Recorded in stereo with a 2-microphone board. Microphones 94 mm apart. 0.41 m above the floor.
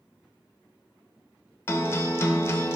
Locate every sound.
1.7 s a guitar: 25° left (ahead or behind), 0.7 m